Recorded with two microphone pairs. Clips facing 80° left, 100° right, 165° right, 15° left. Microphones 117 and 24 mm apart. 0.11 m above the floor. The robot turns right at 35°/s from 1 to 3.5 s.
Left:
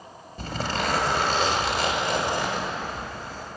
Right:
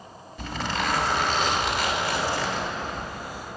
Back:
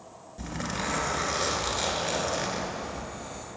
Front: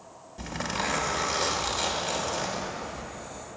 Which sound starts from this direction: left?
A zipper, at 0.4 s.